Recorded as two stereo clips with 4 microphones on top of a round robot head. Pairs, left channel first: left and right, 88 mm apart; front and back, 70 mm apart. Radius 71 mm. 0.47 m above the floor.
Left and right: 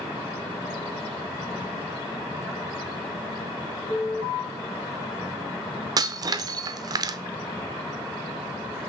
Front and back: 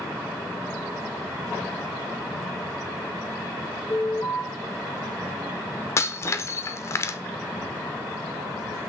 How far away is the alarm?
About 3 m.